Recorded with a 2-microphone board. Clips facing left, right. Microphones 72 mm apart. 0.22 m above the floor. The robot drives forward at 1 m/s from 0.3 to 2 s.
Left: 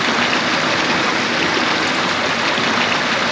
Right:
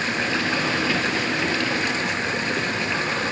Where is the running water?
75° left (ahead or behind); by 3.3 s 80° left.